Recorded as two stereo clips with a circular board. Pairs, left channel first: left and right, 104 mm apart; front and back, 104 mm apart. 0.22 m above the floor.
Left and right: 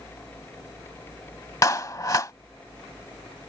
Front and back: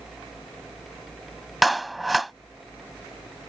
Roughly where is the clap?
Left.